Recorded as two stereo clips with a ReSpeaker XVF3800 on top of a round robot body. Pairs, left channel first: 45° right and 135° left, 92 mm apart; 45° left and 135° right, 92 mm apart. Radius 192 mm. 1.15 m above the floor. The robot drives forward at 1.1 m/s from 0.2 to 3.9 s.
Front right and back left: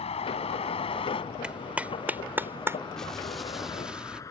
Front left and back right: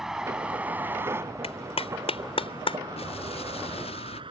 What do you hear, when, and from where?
0.0 s a vehicle: 50° right; by 4.3 s 100° right
1.4 s a clap: 55° left; by 2.8 s 70° left
3.0 s an explosion: 40° left; by 4.2 s 55° left